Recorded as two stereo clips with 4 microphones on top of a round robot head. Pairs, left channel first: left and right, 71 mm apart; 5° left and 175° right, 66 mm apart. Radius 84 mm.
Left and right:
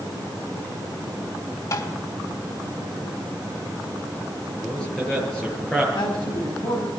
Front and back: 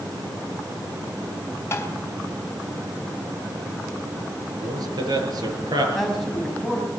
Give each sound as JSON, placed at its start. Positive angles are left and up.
{"t": 1.7, "sound": "tapping", "azimuth_deg": 55, "distance_m": 4.0}
{"t": 4.6, "sound": "a man speaking", "azimuth_deg": 170, "distance_m": 8.0}
{"t": 6.0, "sound": "a man speaking", "azimuth_deg": 90, "distance_m": 5.0}